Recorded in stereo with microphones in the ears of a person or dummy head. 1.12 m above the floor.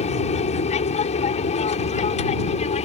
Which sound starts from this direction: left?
An aircraft, at 0.0 s.